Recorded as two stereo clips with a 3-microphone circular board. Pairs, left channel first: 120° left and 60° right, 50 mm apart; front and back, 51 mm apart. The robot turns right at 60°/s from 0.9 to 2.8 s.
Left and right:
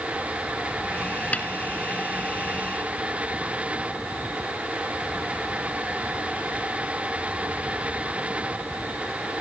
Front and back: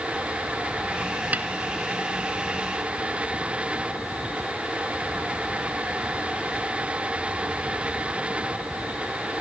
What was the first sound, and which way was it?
A snare drum, 155° left.